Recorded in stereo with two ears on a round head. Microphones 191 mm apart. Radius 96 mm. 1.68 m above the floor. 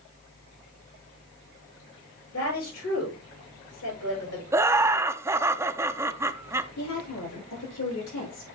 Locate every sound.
2.3 s a woman speaking: 80° left, 8 m
4.5 s laughter: 15° right (ahead or behind), 0.6 m
6.8 s a woman speaking: 85° left, 7.5 m